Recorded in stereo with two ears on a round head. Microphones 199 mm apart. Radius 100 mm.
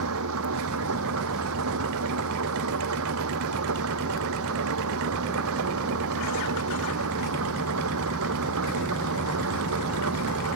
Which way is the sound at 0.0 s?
75° right (ahead or behind).